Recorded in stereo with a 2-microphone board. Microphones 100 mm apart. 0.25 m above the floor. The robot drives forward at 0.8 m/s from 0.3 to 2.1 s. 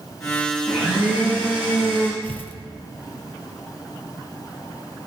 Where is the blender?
15° right (ahead or behind), 7 m.